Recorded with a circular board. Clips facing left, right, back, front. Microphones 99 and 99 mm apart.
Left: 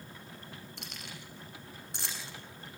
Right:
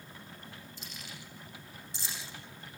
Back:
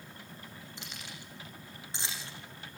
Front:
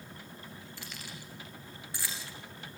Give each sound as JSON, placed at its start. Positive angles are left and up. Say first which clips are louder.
{"t": 0.8, "sound": "keys jangling", "louder": "left 1 dB, front 1 dB", "azimuth_deg": 110, "distance_m": 8.5}